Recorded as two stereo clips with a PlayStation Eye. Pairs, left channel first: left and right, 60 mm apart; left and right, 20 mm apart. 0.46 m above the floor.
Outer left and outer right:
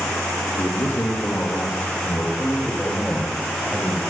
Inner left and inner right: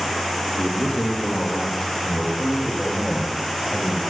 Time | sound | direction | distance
0.6 | a man speaking | 40° left (ahead or behind) | 1.6 m